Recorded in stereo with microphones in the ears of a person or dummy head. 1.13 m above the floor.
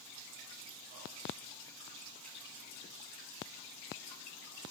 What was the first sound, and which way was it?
Only background noise.